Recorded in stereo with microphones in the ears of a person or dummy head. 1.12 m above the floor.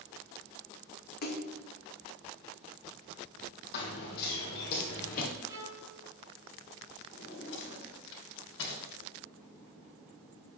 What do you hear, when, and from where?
1.2 s a splash: 50° left (ahead or behind), 0.9 m
3.7 s running footsteps: 60° left (ahead or behind), 2.5 m; by 5.3 s 45° left (ahead or behind), 1.6 m
5.5 s a violin: 15° right (ahead or behind), 4 m
7.1 s a drawer: 70° left (ahead or behind), 2.5 m